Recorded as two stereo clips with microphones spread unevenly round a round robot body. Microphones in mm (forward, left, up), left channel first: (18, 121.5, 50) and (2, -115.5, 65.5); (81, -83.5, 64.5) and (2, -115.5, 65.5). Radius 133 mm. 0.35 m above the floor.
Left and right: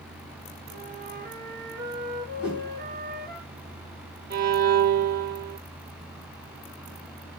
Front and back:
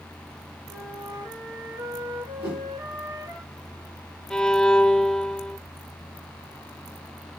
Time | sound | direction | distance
0.7 | a flute | 145° right | 3 m
2.4 | a whoosh | straight behind | 2.5 m
4.3 | a violin | 55° right | 1.0 m